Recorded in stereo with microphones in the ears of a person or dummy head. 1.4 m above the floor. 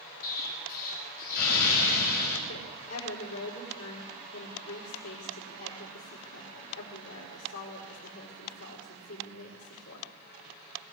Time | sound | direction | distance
0.2 | an explosion | 50° left (ahead or behind) | 5.5 m
2.5 | a woman speaking | 75° left (ahead or behind) | 5 m